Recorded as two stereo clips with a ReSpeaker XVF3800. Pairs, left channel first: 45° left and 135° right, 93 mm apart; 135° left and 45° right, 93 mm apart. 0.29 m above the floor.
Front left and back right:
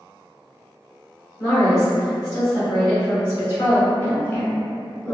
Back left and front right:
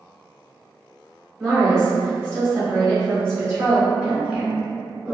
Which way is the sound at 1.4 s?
Straight ahead.